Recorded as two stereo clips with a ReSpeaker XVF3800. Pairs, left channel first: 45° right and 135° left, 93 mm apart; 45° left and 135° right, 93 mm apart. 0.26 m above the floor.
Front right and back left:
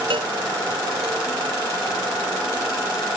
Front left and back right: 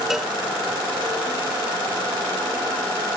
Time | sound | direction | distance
0.1 | a cowbell | 140° left | ?